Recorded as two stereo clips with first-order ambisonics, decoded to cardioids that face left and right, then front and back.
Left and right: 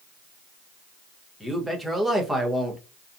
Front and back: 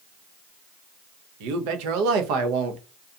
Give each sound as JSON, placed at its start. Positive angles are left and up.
{"t": 1.4, "sound": "a man speaking", "azimuth_deg": 180, "distance_m": 0.6}